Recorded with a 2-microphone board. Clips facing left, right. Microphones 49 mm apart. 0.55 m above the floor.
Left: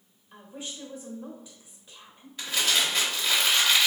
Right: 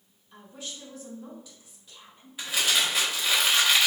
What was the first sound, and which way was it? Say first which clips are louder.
A woman speaking: left 2 dB; 20° left (ahead or behind).